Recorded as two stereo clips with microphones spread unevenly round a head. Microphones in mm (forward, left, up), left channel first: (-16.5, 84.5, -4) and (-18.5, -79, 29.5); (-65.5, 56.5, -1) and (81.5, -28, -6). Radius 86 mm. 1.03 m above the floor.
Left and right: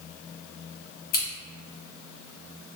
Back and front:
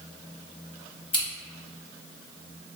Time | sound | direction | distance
1.1 | scissors | 90° left | 1.4 m